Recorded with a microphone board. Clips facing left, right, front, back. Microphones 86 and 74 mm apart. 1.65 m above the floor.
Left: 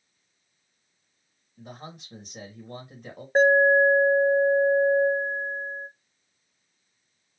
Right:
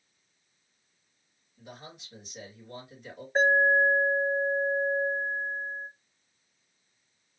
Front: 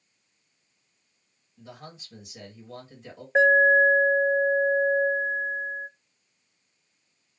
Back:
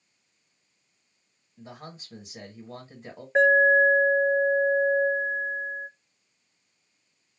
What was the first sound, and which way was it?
A man speaking, 130° left.